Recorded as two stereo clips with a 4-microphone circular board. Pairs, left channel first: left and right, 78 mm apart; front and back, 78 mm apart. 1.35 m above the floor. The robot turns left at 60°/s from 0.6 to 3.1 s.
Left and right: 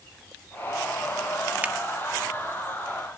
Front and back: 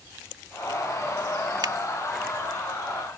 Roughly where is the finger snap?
Behind.